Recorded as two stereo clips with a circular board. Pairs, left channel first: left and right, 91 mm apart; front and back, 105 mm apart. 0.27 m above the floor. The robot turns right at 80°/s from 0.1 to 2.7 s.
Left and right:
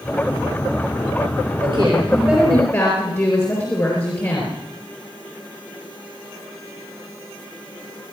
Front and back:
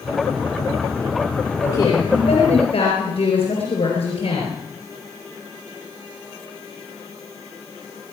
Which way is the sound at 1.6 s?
60° right.